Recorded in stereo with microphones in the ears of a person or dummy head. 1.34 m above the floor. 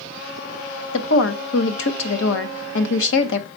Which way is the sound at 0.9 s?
75° left (ahead or behind).